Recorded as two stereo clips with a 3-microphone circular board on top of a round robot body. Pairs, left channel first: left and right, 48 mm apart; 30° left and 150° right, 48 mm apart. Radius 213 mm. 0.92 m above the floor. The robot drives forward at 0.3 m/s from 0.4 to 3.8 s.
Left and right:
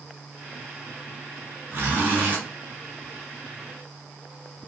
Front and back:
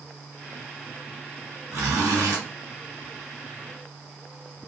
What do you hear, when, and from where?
1.7 s a zipper: 130° right, 1.0 m; by 2.4 s 140° right, 1.1 m